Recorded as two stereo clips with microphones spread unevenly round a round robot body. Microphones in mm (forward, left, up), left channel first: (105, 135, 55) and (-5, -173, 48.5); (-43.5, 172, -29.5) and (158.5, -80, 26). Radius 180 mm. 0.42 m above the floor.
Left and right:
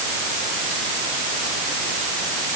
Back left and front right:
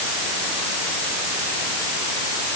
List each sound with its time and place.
Only background noise.